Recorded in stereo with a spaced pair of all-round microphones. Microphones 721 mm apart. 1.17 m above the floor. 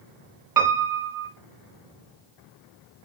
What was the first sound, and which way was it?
A piano, 30° right (ahead or behind).